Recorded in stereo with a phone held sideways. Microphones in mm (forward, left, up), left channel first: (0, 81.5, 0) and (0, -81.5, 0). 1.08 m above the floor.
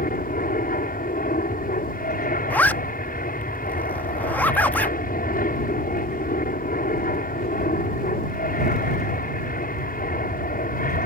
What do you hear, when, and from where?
0.0 s an aircraft: 60° left (ahead or behind)
2.5 s a zipper: 10° left (ahead or behind)